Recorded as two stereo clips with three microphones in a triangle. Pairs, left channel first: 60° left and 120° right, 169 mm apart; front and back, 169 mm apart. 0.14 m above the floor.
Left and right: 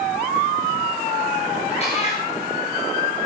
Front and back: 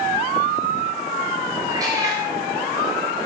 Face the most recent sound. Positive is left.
turn(degrees=110)